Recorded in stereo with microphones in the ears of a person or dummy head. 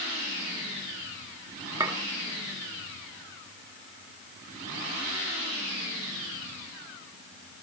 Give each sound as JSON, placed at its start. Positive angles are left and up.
{"t": 1.8, "sound": "a clink", "side_deg": -15, "distance_m": 2.5}